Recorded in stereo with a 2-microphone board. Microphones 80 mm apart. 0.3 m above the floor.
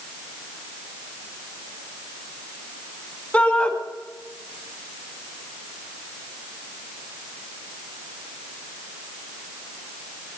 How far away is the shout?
About 4 m.